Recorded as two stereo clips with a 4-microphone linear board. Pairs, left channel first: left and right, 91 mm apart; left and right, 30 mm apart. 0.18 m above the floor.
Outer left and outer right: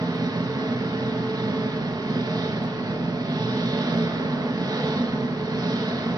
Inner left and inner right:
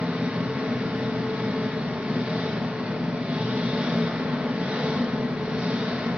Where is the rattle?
I don't hear a rattle.